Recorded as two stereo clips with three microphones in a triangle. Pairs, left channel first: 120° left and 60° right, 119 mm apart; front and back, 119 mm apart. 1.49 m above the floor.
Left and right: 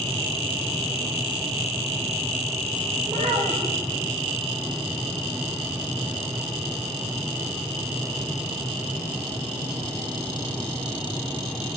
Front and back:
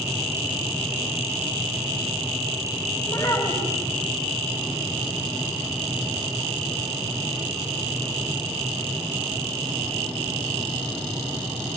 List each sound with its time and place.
3.0 s a child speaking: 65° right, 5 m